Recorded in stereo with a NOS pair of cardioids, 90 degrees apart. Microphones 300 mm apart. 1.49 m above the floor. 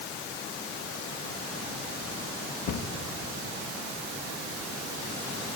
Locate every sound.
2.7 s a cupboard door: 60° left, 1.8 m